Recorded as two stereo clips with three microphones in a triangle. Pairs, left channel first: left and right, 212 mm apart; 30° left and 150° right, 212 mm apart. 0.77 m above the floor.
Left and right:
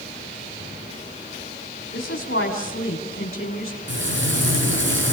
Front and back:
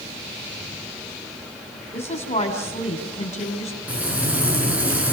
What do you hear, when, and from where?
1.9 s a woman speaking: 85° left, 3.5 m
3.9 s frying: 65° right, 4.5 m